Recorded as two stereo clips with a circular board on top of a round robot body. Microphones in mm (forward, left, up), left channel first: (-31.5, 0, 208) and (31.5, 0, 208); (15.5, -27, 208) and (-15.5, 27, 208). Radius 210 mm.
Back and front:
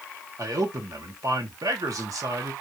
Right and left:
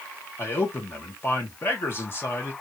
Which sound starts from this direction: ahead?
A man speaking, at 0.4 s.